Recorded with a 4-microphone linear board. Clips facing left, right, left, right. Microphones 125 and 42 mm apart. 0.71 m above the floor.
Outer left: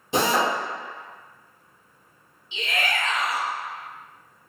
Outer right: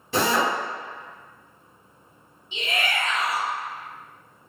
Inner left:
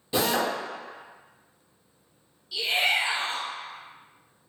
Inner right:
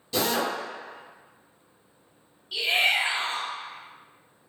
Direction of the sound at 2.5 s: 45° right (ahead or behind).